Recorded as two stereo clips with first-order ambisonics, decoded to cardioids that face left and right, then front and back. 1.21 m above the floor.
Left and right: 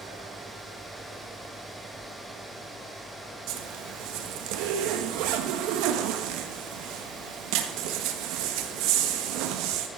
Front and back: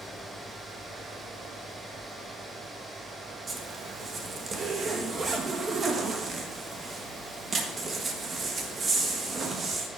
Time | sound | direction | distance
3.5 | a zipper | 110° right | 1.3 m